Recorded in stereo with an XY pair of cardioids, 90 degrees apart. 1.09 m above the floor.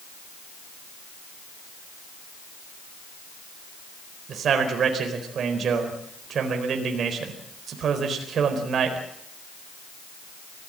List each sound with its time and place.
4.3 s a man speaking: 65° right, 4 m